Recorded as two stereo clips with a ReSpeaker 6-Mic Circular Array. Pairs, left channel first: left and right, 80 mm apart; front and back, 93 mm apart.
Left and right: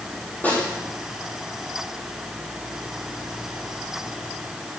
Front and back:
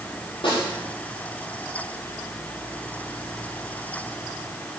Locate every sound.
0.4 s a snare drum: 20° left, 6 m